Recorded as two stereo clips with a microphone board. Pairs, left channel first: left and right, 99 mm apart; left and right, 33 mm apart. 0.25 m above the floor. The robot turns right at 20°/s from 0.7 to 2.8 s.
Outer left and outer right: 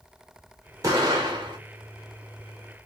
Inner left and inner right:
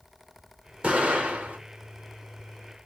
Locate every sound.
0.8 s an explosion: 35° right (ahead or behind), 1.6 m; by 1.6 s 50° right (ahead or behind), 1.6 m